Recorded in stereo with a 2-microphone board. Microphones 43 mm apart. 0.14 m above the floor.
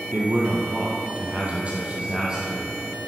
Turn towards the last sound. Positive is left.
turn(degrees=-15)  # may be behind; listen again after turning